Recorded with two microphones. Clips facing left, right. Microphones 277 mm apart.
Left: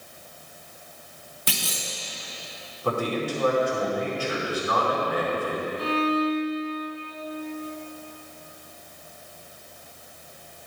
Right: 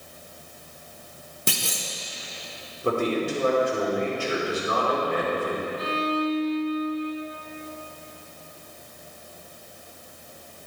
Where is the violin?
35° left (ahead or behind), 0.8 m.